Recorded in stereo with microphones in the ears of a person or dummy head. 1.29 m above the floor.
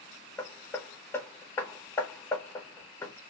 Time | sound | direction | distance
0.4 | hammering | 20° left (ahead or behind) | 1.2 m